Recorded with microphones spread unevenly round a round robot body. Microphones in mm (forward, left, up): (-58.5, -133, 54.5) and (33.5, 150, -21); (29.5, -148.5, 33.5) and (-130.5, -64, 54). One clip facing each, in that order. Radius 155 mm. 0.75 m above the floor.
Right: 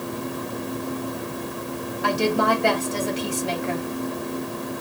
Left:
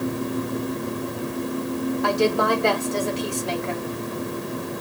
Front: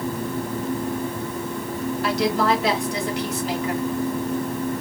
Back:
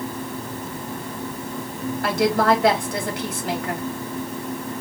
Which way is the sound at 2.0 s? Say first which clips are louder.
Right 1 dB, back 3 dB; 170° right.